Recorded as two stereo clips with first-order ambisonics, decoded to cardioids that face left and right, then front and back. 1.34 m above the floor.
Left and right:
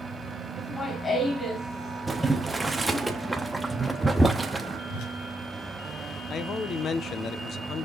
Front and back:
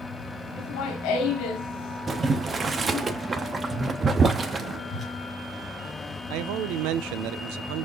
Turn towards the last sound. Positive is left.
turn(degrees=155)